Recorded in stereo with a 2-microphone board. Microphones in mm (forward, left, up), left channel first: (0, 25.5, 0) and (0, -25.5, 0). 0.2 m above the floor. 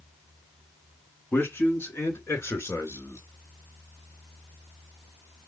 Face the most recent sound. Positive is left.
turn(degrees=65)  # may be behind; listen again after turning